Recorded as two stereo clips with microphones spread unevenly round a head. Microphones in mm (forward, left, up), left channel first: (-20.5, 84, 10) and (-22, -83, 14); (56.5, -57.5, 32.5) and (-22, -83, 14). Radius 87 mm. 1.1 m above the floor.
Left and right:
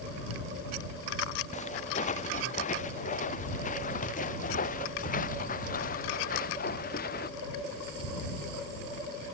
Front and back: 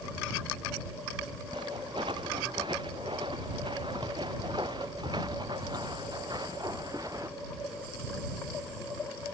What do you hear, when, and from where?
1.5 s footsteps: 135° left; by 7.3 s 125° left